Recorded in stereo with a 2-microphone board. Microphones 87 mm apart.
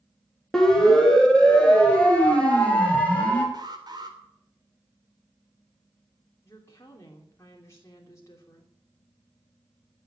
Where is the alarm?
55° right (ahead or behind), 3 m.